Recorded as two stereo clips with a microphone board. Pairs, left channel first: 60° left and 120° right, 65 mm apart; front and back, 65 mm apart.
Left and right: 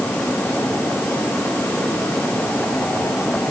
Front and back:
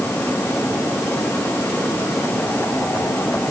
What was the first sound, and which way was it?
Only background noise.